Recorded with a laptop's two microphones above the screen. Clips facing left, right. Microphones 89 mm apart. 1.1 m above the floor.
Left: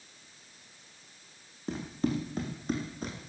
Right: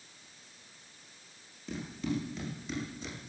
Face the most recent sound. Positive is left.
turn(degrees=50)  # may be behind; listen again after turning